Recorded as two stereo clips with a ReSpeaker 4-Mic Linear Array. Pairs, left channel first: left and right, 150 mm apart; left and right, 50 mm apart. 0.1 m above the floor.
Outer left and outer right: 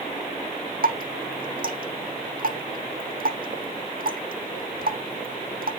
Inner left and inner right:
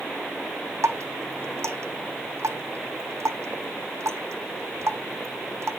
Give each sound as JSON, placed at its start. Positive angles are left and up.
{"t": 0.8, "sound": "dripping", "side_deg": -75, "distance_m": 1.1}